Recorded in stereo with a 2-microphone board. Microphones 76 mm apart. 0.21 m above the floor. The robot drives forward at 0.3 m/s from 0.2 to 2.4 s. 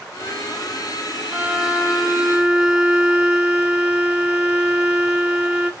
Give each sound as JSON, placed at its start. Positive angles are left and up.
{"t": 1.3, "sound": "a violin", "side_deg": -15, "distance_m": 0.5}